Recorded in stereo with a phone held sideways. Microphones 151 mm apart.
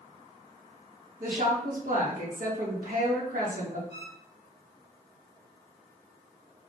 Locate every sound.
1.2 s a woman speaking: 65° right (ahead or behind), 2.0 m
3.9 s a violin: 85° right, 2 m